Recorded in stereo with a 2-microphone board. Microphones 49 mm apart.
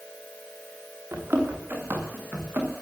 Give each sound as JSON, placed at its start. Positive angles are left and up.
{"t": 1.1, "sound": "running footsteps", "side_deg": -50, "distance_m": 7.0}